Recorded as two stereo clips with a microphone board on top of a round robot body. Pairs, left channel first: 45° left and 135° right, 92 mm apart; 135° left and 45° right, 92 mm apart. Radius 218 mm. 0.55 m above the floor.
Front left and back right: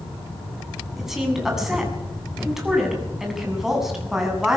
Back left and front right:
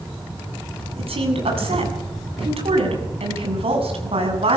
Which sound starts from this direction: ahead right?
A woman speaking, at 1.0 s.